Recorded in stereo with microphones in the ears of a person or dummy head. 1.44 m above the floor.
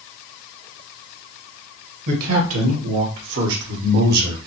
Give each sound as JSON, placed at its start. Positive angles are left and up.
{"t": 2.1, "sound": "a man speaking", "side_deg": -75, "distance_m": 1.5}